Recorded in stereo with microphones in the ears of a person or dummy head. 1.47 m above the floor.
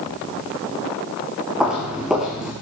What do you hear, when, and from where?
1.6 s footsteps: centre (ahead or behind), 4.5 m